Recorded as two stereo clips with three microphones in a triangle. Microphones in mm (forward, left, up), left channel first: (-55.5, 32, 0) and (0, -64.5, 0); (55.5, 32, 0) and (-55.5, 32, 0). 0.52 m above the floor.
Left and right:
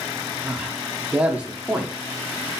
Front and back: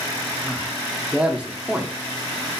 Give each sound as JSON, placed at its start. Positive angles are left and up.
{"t": 0.5, "sound": "a man speaking", "azimuth_deg": -125, "distance_m": 1.0}